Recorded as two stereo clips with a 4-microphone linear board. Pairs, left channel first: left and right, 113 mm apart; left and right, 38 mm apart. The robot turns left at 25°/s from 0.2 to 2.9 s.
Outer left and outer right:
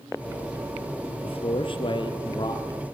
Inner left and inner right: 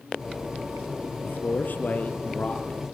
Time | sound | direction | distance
1.2 | a man speaking | 75° left | 3 m